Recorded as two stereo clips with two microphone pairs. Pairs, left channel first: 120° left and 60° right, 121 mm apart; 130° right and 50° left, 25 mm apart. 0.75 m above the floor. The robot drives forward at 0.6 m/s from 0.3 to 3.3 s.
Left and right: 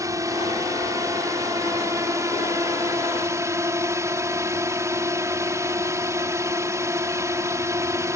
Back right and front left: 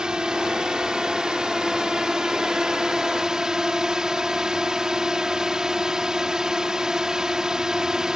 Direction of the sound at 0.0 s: Straight ahead.